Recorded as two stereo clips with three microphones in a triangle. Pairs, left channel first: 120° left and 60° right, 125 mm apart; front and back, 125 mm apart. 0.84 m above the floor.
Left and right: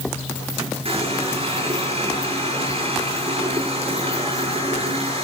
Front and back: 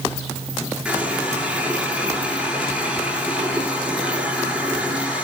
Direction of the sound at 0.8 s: 100° right.